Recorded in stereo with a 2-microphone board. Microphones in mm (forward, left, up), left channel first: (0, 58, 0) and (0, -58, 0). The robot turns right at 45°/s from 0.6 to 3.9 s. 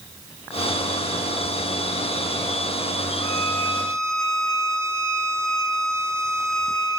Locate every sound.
3.2 s a violin: 140° left, 1.5 m; by 7.0 s 170° left, 1.5 m